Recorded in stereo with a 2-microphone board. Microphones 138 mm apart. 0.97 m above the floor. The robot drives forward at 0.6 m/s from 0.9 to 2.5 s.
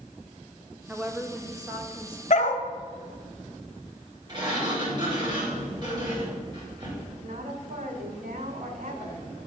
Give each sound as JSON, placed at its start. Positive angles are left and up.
{"t": 0.9, "sound": "a woman speaking", "side_deg": -10, "distance_m": 0.9}
{"t": 2.3, "sound": "a dog barking", "side_deg": 55, "distance_m": 0.9}
{"t": 4.3, "sound": "a sliding door", "side_deg": -35, "distance_m": 3.0}
{"t": 7.2, "sound": "a woman speaking", "side_deg": -75, "distance_m": 2.0}